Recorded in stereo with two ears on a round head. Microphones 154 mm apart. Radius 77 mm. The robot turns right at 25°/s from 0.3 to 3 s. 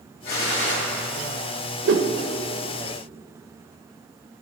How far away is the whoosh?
About 0.6 m.